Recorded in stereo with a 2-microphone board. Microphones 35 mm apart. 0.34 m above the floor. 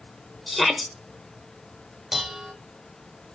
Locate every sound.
0.5 s a shout: centre (ahead or behind), 0.8 m
2.1 s dishes clattering: 10° right (ahead or behind), 1.0 m